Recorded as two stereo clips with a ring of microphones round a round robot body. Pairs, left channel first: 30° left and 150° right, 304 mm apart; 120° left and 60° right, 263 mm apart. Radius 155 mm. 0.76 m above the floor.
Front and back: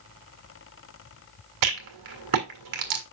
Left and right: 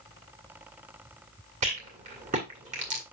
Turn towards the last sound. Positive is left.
turn(degrees=-130)